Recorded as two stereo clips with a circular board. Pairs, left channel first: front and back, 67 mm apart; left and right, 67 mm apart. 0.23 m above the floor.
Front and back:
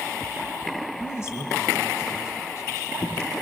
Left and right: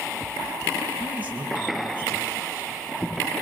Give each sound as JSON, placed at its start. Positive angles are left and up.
{"t": 1.0, "sound": "a man speaking", "azimuth_deg": -35, "distance_m": 2.0}